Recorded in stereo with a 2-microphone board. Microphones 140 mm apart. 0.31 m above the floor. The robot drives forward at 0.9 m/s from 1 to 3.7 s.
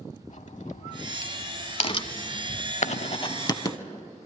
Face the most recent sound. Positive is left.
turn(degrees=25)  # may be behind; listen again after turning